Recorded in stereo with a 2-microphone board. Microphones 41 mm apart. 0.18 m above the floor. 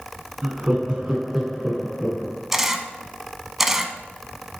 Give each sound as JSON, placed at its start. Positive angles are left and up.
{"t": 0.4, "sound": "laughter", "side_deg": -40, "distance_m": 1.4}
{"t": 2.5, "sound": "a camera shutter", "side_deg": -10, "distance_m": 0.7}